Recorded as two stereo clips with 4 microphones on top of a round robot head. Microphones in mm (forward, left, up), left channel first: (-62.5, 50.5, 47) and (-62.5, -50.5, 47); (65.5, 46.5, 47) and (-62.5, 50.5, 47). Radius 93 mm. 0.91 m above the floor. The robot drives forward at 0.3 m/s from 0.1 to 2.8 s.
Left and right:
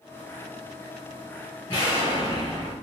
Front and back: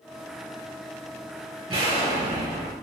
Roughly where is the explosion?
Behind left.